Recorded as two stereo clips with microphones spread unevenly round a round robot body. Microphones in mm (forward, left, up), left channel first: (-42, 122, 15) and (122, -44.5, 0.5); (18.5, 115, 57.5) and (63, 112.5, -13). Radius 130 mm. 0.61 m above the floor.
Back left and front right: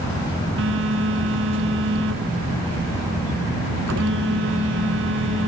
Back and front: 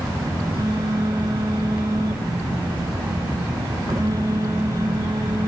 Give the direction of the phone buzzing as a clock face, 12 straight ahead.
3 o'clock.